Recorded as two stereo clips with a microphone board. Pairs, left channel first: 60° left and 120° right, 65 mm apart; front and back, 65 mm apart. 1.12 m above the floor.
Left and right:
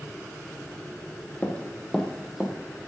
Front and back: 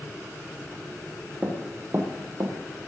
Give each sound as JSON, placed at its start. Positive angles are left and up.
{"t": 1.4, "sound": "running footsteps", "azimuth_deg": 120, "distance_m": 2.0}